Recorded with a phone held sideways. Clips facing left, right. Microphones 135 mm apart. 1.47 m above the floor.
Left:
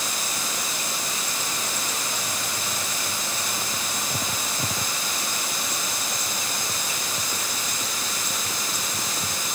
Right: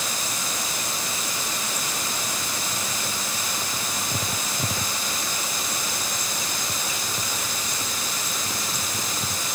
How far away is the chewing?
No chewing in this recording.